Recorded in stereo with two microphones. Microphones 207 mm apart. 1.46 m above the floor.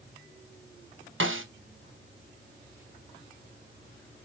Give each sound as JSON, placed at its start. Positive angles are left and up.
{"t": 1.2, "sound": "a snare drum", "side_deg": -70, "distance_m": 0.9}